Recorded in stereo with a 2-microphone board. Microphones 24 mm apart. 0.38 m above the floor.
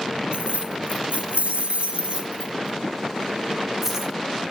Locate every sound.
0.3 s keys jangling: 60° right (ahead or behind), 1.7 m; by 4.5 s 10° right (ahead or behind), 2 m